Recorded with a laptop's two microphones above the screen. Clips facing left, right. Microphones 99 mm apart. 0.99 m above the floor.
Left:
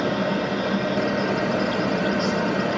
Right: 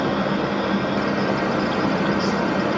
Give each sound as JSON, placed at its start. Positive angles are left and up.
{"t": 0.0, "sound": "a fan", "side_deg": -60, "distance_m": 1.4}